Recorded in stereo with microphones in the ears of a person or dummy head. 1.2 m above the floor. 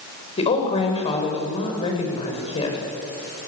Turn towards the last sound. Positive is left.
turn(degrees=30)  # may be behind; listen again after turning